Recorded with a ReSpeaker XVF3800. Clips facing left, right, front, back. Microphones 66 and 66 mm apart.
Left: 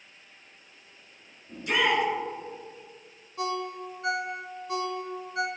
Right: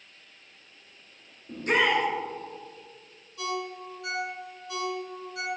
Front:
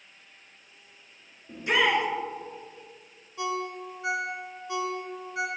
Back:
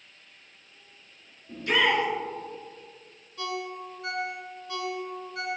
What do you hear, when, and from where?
1.5 s a shout: 65° right, 1.6 m
3.4 s a ringtone: 60° left, 0.7 m